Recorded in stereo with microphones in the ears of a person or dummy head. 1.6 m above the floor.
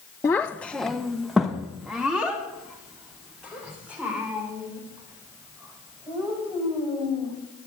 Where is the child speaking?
15° left (ahead or behind), 0.6 m; by 7.3 s 5° right (ahead or behind), 7.5 m.